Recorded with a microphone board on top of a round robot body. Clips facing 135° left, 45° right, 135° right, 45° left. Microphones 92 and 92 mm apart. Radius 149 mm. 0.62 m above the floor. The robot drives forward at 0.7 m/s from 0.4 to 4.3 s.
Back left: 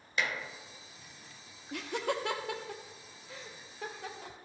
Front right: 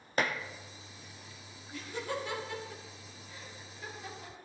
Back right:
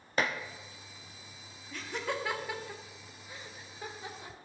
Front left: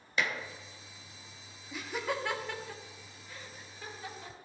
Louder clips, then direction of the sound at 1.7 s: Back left 4 dB, front left 1 dB; 125° left.